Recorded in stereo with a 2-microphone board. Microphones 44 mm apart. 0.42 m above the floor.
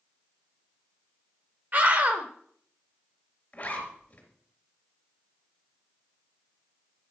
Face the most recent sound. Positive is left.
turn(degrees=30)  # may be behind; listen again after turning